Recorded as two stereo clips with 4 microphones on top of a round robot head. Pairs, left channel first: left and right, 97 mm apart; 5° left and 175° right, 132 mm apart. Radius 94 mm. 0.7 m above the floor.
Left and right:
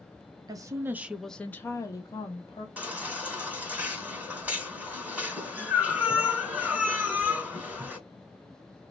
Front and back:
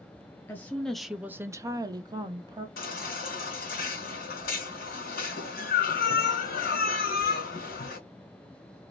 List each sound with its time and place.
0.5 s a woman speaking: 65° right, 0.6 m; by 2.7 s 130° left, 1.0 m
2.8 s a baby crying: 15° right, 1.8 m